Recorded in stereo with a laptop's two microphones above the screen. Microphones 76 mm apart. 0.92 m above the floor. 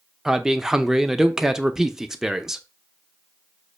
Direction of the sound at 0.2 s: 5° right (ahead or behind).